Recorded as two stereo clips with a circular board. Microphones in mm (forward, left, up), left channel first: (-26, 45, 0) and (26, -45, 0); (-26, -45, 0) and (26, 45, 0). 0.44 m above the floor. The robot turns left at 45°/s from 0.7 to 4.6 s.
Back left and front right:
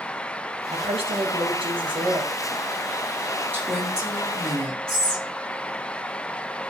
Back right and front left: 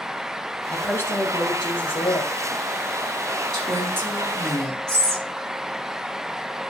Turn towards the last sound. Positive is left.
turn(degrees=-35)